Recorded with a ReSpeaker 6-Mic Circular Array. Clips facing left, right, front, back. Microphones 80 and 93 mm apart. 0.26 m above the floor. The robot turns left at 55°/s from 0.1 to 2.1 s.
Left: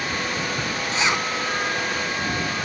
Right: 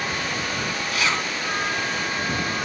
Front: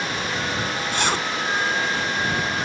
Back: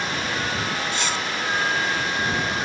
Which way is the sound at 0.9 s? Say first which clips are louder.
Left 2 dB, front 3 dB; 30° left.